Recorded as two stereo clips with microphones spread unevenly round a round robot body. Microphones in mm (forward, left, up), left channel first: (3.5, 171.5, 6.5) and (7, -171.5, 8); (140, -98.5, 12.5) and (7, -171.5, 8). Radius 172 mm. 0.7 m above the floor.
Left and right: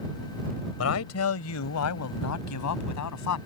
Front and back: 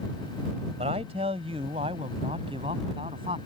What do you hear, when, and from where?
0.8 s a man speaking: 140° left; by 3.4 s 135° left